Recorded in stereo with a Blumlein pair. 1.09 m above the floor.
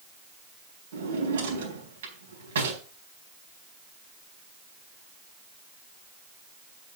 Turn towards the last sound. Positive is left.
turn(degrees=-65)